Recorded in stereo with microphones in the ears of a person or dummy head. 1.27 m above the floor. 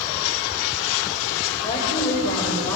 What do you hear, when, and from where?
1.6 s a woman speaking: 25° left (ahead or behind), 6 m; by 2.8 s 10° left (ahead or behind), 6 m